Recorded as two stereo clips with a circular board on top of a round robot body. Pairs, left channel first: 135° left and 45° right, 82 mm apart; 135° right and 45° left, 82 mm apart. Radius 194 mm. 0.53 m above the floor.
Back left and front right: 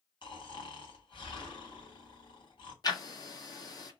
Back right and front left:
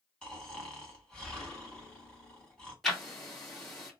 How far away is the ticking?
About 1.5 m.